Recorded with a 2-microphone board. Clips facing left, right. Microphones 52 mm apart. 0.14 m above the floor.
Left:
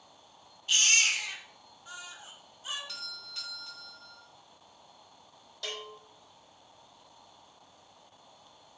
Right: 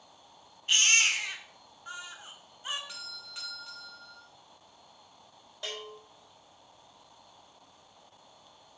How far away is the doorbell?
About 1.8 m.